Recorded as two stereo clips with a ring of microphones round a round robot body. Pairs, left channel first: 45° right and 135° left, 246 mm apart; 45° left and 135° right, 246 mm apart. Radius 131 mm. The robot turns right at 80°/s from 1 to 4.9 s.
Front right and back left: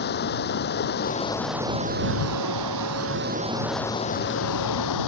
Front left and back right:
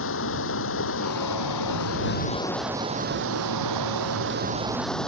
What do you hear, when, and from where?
0.0 s running water: 5° left; by 5.1 s 40° right